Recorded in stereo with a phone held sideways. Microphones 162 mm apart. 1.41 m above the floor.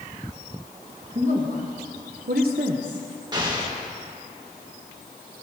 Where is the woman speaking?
50° right (ahead or behind), 1.8 m; by 3.1 s 25° right (ahead or behind), 0.9 m.